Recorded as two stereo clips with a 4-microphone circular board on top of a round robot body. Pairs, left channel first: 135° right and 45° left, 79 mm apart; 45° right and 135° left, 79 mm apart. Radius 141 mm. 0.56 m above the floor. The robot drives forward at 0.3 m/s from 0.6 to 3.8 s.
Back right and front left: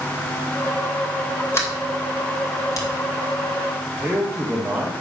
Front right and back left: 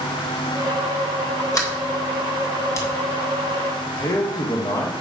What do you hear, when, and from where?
1.5 s a sliding door: 85° right, 1.9 m; by 2.9 s 95° right, 1.9 m
4.0 s a man speaking: 25° right, 1.5 m